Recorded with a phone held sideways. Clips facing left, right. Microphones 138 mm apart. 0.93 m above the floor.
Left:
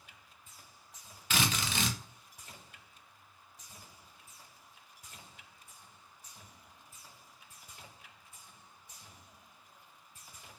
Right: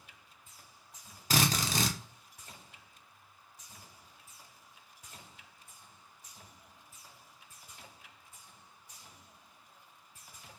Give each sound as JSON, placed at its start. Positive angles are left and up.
{"t": 1.3, "sound": "a drill", "side_deg": -35, "distance_m": 0.6}